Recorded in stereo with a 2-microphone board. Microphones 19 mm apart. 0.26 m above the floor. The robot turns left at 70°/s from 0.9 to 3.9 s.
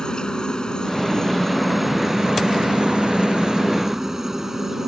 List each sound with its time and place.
0.0 s a helicopter: 55° left; by 4.9 s 155° right